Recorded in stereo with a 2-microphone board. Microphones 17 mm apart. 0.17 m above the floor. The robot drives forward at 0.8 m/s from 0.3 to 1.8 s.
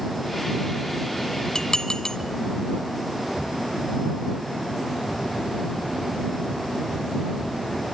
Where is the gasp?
No gasp in this recording.